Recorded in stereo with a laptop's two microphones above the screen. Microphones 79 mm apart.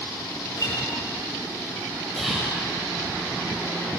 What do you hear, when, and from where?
0.6 s a guitar: 45° left (ahead or behind), 7 m
2.2 s whispering: centre (ahead or behind), 5 m